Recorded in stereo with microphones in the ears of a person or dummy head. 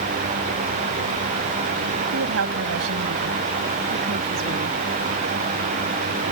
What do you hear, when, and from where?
2.1 s a woman speaking: 80° right; by 4.8 s 65° right (ahead or behind)